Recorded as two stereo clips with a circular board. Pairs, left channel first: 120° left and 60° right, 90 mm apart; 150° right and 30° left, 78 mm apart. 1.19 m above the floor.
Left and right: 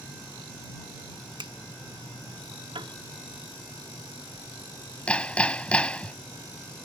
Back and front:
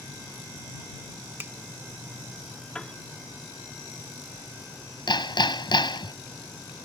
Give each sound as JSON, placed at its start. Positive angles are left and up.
{"t": 1.4, "sound": "a finger snap", "azimuth_deg": -35}
{"t": 2.8, "sound": "a piano", "azimuth_deg": -75}
{"t": 5.1, "sound": "hammering", "azimuth_deg": -165}